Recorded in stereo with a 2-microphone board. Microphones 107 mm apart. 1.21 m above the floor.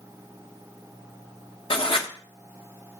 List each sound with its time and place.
1.7 s writing: 60° left (ahead or behind), 1.4 m